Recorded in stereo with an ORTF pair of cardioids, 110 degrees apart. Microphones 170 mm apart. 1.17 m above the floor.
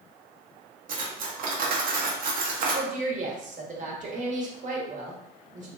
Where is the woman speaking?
50° right, 1.1 m.